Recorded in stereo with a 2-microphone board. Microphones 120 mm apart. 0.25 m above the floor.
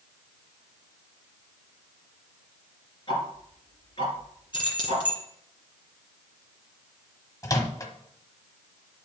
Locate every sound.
3.1 s ticking: 45° left (ahead or behind), 2.5 m
4.5 s keys jangling: 45° left (ahead or behind), 2 m
7.4 s a microwave: 30° left (ahead or behind), 1.1 m